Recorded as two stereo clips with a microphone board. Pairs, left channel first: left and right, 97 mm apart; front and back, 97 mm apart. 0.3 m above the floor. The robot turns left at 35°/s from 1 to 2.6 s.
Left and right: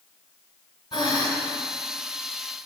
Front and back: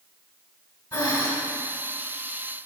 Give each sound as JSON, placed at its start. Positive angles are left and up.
{"t": 0.9, "sound": "breathing", "azimuth_deg": 50, "distance_m": 1.9}